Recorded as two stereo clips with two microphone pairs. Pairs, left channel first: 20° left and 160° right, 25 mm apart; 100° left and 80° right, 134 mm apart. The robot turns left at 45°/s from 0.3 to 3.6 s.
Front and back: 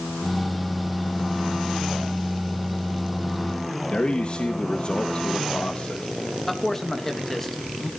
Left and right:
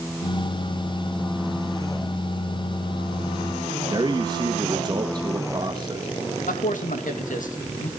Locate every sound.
3.9 s a man speaking: 25° right, 1.6 m
6.5 s a man speaking: 100° left, 2.0 m